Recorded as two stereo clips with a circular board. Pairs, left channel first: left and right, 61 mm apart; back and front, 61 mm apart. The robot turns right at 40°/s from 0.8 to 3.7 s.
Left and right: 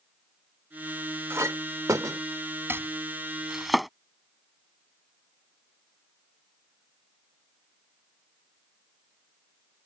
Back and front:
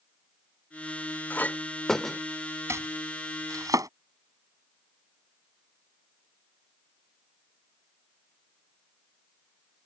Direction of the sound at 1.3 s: 125° right.